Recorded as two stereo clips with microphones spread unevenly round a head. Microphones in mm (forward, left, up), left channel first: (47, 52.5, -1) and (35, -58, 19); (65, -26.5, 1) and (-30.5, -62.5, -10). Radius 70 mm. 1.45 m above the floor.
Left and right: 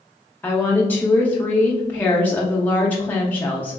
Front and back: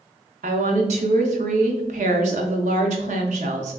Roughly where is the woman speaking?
Behind.